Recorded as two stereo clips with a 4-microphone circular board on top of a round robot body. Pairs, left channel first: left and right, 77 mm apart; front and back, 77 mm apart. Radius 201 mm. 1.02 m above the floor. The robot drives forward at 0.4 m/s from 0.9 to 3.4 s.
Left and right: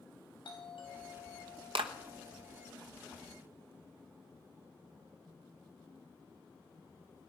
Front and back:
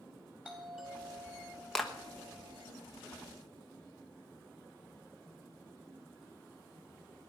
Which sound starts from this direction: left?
A doorbell, at 0.5 s.